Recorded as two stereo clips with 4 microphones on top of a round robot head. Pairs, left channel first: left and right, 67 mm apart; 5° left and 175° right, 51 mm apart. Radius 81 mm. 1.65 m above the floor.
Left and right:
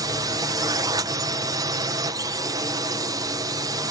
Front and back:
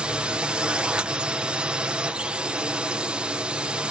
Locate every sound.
0.0 s a drone: 110° right